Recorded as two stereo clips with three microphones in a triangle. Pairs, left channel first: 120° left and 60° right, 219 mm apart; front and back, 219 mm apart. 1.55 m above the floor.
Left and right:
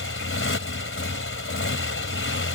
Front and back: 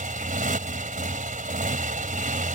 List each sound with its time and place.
0.0 s a motorcycle: 130° left